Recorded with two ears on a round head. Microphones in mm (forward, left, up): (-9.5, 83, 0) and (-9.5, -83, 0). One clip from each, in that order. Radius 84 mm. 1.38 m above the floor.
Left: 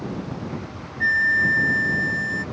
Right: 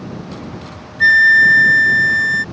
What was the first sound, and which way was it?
A flute, 40° right (ahead or behind).